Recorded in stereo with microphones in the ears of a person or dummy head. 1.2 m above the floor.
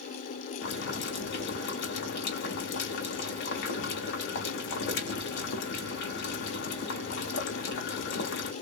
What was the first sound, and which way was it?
Boiling, 65° left (ahead or behind).